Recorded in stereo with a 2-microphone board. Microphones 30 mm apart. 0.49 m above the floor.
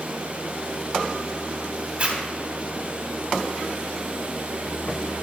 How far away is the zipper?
About 1.4 m.